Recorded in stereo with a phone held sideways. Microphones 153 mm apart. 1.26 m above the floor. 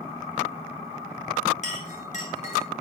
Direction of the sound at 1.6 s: 50° left (ahead or behind).